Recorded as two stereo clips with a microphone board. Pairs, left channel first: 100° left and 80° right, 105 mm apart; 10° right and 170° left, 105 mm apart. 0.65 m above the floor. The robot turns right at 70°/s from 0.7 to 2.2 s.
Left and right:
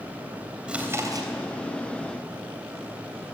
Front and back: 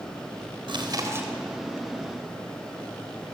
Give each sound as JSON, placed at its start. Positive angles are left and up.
{"t": 0.7, "sound": "chewing", "azimuth_deg": -160, "distance_m": 3.5}